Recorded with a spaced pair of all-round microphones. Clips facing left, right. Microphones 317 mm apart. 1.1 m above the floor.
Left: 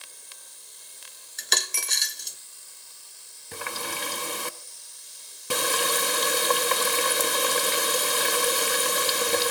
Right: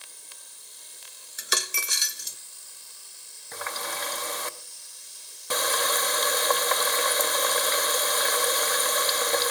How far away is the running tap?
About 0.9 m.